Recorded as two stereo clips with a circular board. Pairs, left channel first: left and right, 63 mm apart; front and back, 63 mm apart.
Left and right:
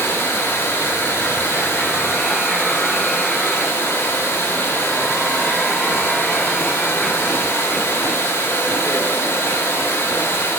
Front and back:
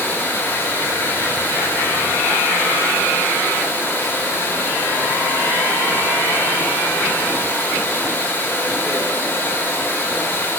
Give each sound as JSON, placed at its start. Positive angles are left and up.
{"t": 0.0, "sound": "running water", "azimuth_deg": 50, "distance_m": 1.5}